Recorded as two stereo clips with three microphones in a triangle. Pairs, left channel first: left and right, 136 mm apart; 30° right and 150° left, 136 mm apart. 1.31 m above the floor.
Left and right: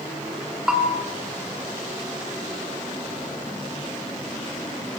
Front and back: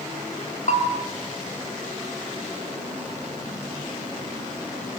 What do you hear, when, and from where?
0.7 s a bell: 5° right, 2.5 m